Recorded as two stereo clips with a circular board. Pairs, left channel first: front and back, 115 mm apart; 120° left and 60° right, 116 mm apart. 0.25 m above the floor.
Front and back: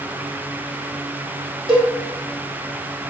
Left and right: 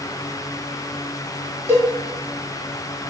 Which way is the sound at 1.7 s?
135° right.